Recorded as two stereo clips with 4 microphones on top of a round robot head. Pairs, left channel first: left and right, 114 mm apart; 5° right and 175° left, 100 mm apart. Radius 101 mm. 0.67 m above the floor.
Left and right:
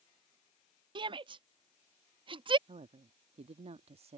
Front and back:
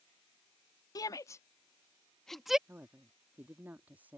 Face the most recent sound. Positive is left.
turn(degrees=-110)